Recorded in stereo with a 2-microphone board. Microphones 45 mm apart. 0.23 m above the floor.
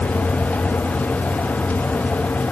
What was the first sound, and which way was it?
Only background noise.